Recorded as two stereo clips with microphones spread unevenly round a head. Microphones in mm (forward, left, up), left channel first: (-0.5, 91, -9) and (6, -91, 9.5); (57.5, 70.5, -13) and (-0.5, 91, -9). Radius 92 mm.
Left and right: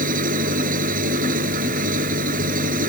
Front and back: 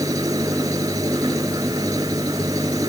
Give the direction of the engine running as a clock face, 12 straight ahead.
5 o'clock.